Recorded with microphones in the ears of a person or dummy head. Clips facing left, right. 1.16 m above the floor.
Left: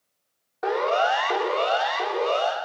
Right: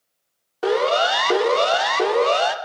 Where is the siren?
35° right (ahead or behind), 3.5 m; by 2.5 s 70° right (ahead or behind), 4 m.